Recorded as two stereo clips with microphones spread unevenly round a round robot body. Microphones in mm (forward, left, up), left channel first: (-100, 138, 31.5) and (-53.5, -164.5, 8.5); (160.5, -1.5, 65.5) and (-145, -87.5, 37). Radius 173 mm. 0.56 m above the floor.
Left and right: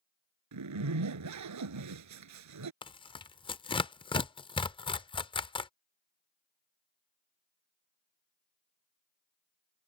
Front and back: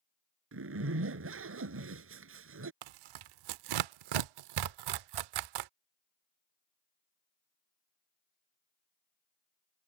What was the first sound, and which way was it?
A zipper, 115° right.